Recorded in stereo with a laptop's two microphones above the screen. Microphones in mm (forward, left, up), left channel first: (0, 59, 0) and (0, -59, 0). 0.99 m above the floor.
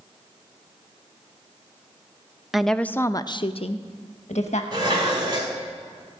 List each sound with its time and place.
2.5 s a woman speaking: 5° right (ahead or behind), 0.8 m; by 4.6 s 75° left (ahead or behind), 1.2 m
4.7 s dishes clattering: 40° right (ahead or behind), 2.5 m